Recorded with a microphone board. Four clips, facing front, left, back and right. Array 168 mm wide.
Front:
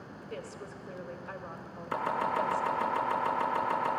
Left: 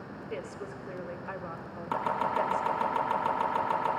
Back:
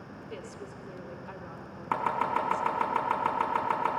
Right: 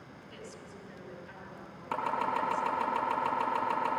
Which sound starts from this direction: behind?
Chopping, at 1.9 s.